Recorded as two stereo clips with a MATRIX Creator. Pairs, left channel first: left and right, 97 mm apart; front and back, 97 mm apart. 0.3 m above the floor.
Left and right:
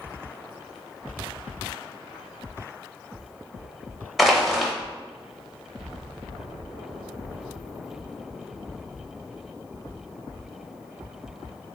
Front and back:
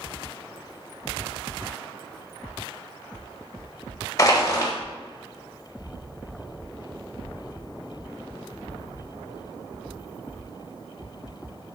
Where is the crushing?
Straight ahead, 0.7 m.